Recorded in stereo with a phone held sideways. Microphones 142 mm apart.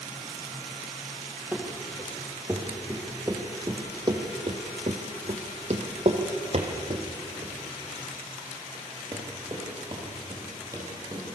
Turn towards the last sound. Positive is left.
turn(degrees=-25)  # may be behind; listen again after turning